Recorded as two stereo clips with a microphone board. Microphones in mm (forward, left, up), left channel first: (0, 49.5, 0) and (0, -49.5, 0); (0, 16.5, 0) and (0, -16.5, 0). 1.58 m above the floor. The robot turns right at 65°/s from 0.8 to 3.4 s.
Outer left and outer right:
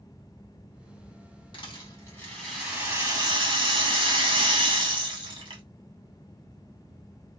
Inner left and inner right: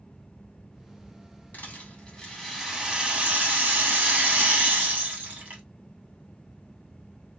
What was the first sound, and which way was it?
A rattle, 115° left.